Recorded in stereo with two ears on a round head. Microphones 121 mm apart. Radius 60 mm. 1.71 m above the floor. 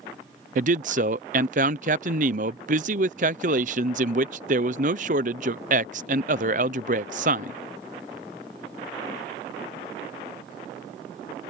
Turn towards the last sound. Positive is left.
turn(degrees=-60)  # may be behind; listen again after turning